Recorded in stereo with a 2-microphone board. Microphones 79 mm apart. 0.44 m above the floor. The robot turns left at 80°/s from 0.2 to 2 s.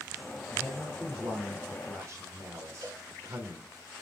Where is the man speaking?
25° left, 1.3 m; by 3.7 s 95° right, 1.3 m.